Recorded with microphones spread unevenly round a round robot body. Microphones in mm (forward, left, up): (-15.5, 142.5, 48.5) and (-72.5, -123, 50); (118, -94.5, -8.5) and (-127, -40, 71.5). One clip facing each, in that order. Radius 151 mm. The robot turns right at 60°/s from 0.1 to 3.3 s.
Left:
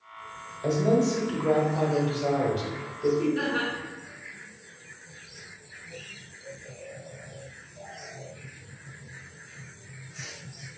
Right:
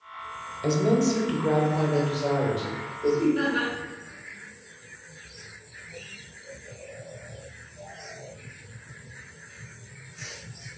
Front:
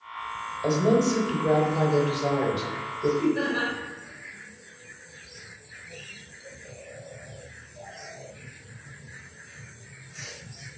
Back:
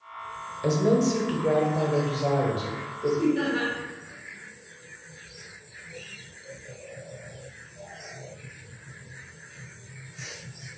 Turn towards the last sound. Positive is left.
turn(degrees=-40)